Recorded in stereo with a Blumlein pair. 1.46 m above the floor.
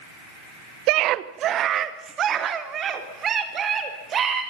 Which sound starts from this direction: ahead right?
A scream, at 0.9 s.